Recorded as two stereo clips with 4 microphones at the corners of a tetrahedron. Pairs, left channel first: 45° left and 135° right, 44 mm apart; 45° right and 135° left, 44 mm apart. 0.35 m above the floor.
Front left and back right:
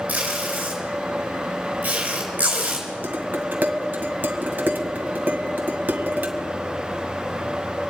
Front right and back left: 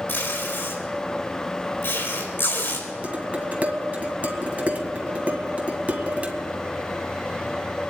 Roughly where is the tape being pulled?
Right.